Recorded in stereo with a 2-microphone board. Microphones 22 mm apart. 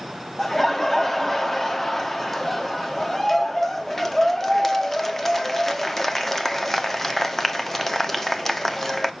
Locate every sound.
0.4 s laughter: 20° left (ahead or behind), 1.0 m